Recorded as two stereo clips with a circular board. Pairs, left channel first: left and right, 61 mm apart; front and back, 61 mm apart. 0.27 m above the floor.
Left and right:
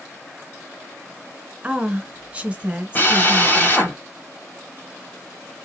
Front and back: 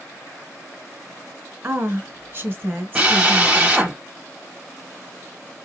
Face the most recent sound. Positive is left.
turn(degrees=120)